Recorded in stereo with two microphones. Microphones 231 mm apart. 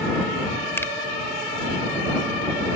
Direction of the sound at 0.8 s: 10° left (ahead or behind).